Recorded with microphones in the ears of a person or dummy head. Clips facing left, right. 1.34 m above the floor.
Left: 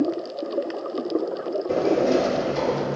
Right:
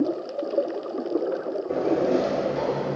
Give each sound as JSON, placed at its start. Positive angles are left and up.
{"t": 1.7, "sound": "a sliding door", "side_deg": 55, "distance_m": 2.5}